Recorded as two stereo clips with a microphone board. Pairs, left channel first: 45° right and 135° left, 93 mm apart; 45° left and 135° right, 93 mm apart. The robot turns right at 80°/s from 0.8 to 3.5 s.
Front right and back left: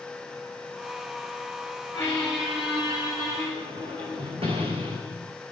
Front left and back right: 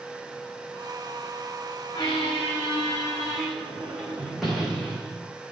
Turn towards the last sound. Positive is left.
turn(degrees=140)